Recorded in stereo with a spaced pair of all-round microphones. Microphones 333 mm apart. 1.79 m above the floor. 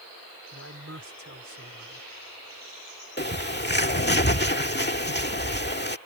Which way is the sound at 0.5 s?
45° right (ahead or behind).